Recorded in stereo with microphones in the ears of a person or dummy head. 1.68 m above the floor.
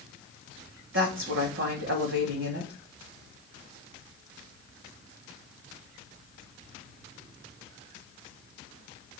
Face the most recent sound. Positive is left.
turn(degrees=-75)  # may be behind; listen again after turning